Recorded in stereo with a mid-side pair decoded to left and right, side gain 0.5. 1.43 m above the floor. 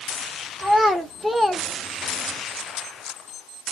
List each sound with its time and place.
0.6 s a child speaking: 15° right, 2.5 m; by 2.4 s 55° left, 1.1 m